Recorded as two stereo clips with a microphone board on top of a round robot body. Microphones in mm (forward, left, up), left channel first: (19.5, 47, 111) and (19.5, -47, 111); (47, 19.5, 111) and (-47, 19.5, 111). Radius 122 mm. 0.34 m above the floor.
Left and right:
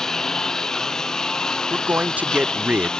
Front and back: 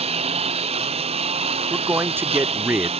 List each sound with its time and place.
0.0 s a lawn mower: 175° left
1.7 s a man speaking: 145° right